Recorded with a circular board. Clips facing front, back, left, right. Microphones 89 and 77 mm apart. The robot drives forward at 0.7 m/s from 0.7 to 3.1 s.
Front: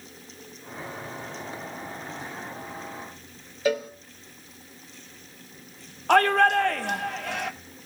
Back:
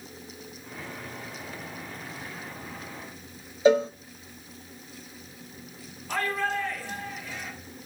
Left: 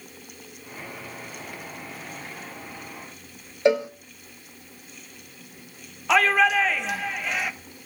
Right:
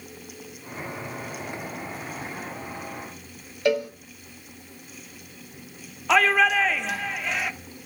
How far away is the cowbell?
About 1.1 m.